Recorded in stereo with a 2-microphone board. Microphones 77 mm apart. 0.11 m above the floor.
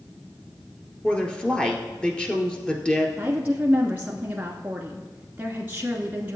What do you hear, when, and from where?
1.0 s a woman speaking: 10° left (ahead or behind), 1.6 m
3.2 s a woman speaking: 20° right (ahead or behind), 1.2 m